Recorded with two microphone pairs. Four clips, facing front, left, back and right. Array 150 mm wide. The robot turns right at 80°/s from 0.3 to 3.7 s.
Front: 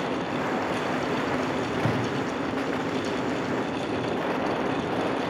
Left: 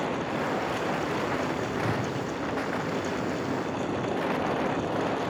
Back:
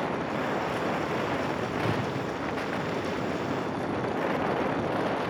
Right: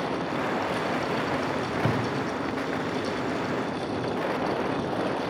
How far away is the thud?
About 6.5 m.